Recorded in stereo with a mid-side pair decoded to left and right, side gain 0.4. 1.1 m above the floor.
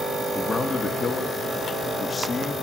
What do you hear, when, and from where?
0.3 s a man speaking: 40° left, 1.3 m